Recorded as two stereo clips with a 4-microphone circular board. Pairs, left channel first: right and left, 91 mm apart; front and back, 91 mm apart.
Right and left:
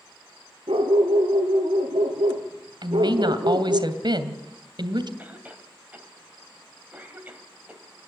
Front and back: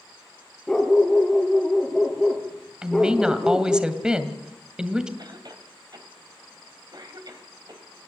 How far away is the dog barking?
About 3 m.